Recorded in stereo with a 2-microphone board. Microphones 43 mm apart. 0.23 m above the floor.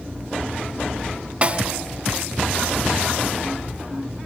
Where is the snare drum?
30° right (ahead or behind), 1.1 m.